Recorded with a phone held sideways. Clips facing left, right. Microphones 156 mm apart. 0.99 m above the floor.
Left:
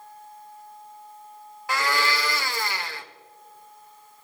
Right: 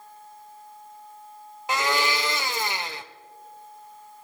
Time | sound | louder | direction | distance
1.7 | a blender | right 1 dB | 20° right (ahead or behind) | 0.9 m